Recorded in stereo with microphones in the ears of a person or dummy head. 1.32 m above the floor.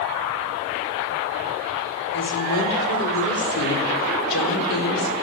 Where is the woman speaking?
70° left (ahead or behind), 4.5 m.